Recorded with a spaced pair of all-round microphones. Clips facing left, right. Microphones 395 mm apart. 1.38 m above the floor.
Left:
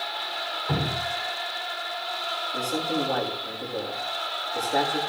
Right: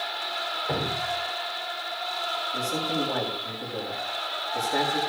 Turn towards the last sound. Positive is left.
turn(degrees=-15)  # may be behind; listen again after turning